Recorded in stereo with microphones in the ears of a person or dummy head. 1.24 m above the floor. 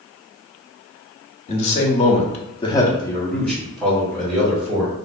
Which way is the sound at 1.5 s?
35° left (ahead or behind).